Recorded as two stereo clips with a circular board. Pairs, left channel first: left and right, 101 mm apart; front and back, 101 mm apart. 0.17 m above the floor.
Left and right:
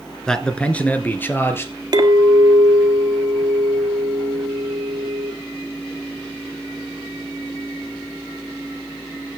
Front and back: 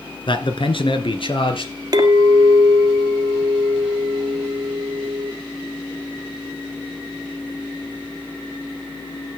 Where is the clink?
135° right, 1.8 m.